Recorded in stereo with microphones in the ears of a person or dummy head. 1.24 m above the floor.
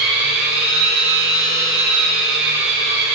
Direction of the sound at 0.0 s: 55° right (ahead or behind).